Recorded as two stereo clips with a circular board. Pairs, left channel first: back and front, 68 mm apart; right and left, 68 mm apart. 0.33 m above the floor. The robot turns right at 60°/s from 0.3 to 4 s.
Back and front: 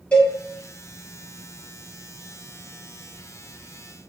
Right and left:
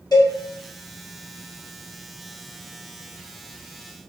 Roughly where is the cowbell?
Right.